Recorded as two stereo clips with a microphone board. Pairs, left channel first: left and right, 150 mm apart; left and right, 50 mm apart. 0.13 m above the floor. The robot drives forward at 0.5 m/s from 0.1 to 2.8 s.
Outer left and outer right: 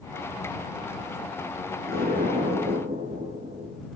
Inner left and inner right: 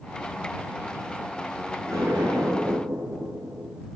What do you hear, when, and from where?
1.9 s an explosion: 80° right, 10 m; by 3.8 s 75° right (ahead or behind), 10 m